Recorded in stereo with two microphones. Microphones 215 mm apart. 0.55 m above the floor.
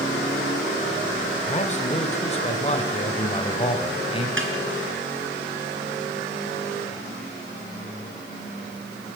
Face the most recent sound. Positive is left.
turn(degrees=-70)  # may be behind; listen again after turning